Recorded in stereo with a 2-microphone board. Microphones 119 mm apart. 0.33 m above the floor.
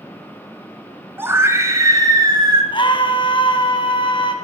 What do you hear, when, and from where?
1.2 s a scream: 20° right (ahead or behind), 2.5 m; by 2.6 s 35° right (ahead or behind), 3 m
2.7 s a scream: 45° left (ahead or behind), 2.5 m